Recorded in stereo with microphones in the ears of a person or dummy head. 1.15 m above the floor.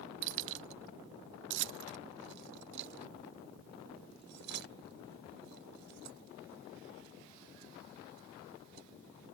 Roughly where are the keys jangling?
Right.